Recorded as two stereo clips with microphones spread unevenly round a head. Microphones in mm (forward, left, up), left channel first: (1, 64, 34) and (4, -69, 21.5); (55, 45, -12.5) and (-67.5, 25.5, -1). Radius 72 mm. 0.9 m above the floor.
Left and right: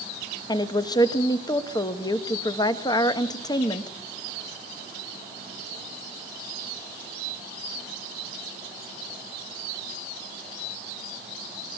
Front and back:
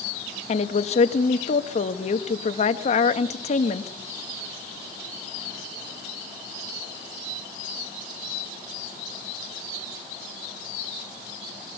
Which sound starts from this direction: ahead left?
A woman speaking, at 0.5 s.